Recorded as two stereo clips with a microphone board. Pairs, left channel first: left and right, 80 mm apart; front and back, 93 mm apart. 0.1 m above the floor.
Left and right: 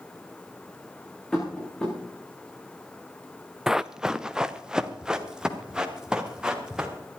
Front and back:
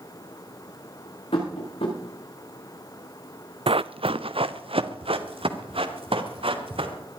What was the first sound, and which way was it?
Tapping, 10° left.